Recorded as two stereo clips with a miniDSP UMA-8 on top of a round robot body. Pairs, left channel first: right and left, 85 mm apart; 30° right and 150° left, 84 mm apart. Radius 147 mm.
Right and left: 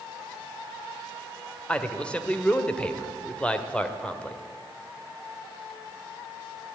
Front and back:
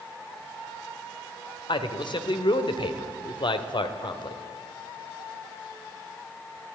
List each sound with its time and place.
1.7 s a man speaking: 15° right, 1.9 m